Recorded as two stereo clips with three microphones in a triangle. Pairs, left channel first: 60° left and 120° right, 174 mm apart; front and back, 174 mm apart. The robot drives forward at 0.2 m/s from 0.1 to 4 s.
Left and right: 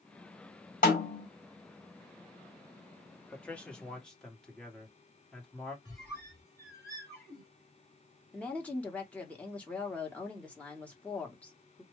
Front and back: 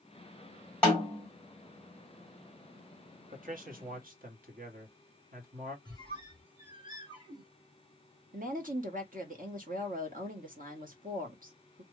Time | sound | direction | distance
0.8 | a snare drum | 80° left | 2 m
3.3 | a man speaking | 140° left | 1.1 m
5.8 | a squeak | 130° left | 2.0 m
8.3 | a woman speaking | 140° left | 1.1 m